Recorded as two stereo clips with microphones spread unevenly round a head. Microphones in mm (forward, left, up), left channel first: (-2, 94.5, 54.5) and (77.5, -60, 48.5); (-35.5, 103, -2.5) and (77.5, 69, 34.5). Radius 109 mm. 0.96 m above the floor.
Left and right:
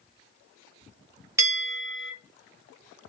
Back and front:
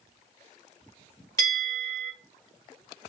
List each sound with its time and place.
1.4 s a bell: 135° right, 1.4 m